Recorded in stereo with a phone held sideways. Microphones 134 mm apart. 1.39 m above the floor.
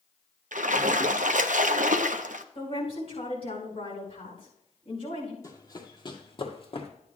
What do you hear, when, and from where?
0.5 s a splash: 75° right (ahead or behind), 0.6 m
2.5 s a woman speaking: 45° left (ahead or behind), 5.5 m
5.4 s running footsteps: 25° left (ahead or behind), 1.6 m; by 6.9 s 45° left (ahead or behind), 1.9 m